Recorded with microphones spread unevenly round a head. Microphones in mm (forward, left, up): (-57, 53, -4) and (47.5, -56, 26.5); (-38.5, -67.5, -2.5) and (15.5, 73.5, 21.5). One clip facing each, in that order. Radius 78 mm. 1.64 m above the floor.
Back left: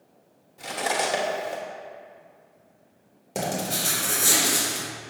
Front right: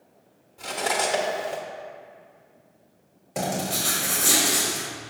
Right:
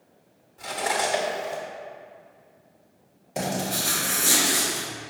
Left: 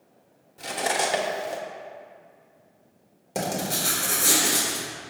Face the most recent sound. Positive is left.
turn(degrees=95)